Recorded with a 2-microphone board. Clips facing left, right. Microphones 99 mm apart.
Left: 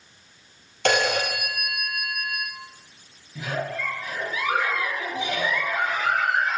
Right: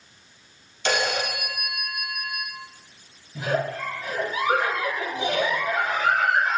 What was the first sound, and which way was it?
A phone ringing, 60° left (ahead or behind).